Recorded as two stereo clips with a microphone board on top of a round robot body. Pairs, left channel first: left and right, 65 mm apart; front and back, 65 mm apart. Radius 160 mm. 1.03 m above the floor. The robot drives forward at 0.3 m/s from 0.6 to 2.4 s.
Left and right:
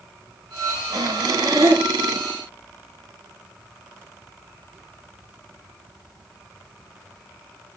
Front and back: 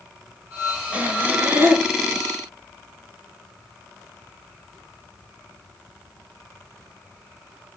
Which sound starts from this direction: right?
Breathing, at 0.9 s.